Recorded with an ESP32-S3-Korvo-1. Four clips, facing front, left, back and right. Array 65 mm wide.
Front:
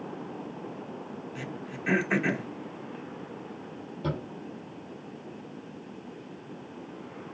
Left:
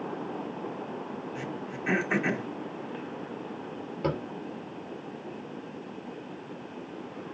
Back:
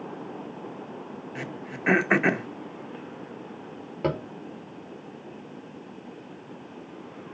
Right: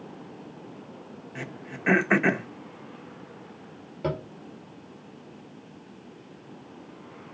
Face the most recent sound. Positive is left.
turn(degrees=175)